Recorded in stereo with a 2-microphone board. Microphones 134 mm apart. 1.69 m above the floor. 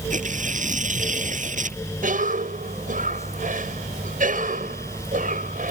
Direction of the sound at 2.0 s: 80° right.